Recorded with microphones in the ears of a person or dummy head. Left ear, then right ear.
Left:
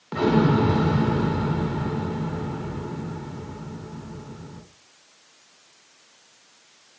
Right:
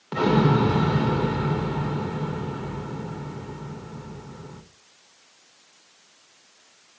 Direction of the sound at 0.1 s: 10° right (ahead or behind).